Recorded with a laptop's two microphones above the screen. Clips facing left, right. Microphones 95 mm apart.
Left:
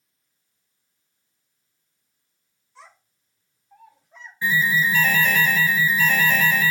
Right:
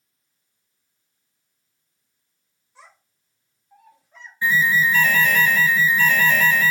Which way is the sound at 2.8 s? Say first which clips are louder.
Left 2 dB; 15° right (ahead or behind).